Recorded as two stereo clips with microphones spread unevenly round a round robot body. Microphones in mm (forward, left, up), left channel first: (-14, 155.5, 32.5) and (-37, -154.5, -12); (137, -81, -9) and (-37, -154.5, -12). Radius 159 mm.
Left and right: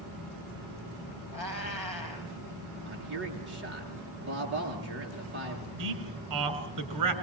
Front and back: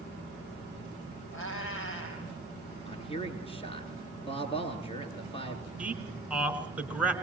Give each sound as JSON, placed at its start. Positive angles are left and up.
{"t": 1.3, "sound": "a cat meowing", "azimuth_deg": 10, "distance_m": 4.5}
{"t": 2.9, "sound": "a man speaking", "azimuth_deg": -35, "distance_m": 5.0}
{"t": 5.8, "sound": "a man speaking", "azimuth_deg": -75, "distance_m": 3.5}